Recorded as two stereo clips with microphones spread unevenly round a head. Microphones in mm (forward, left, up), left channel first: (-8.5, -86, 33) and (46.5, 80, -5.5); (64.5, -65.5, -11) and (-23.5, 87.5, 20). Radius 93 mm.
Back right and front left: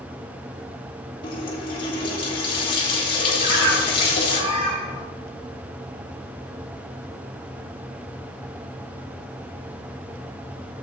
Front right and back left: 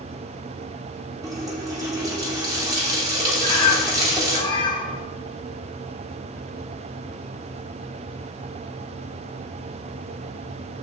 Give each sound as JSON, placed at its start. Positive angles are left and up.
{"t": 1.2, "sound": "a running tap", "azimuth_deg": -170, "distance_m": 2.5}
{"t": 3.4, "sound": "a bird", "azimuth_deg": 10, "distance_m": 1.8}